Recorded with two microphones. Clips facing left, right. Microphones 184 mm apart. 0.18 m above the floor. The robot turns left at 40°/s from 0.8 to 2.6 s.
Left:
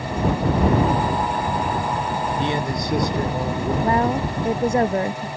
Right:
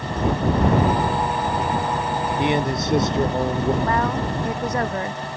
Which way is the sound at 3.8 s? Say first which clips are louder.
Left 2 dB; 30° left (ahead or behind).